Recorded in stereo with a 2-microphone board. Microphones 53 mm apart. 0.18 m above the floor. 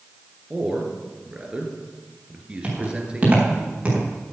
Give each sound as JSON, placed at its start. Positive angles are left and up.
{"t": 0.5, "sound": "a man speaking", "side_deg": -20, "distance_m": 2.5}
{"t": 2.6, "sound": "footsteps", "side_deg": -30, "distance_m": 5.5}